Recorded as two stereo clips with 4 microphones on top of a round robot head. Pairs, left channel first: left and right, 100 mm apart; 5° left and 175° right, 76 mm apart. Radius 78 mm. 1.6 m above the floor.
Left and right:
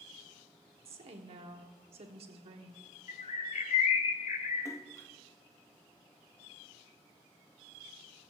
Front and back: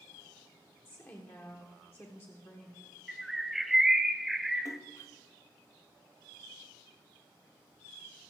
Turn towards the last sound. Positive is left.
turn(degrees=35)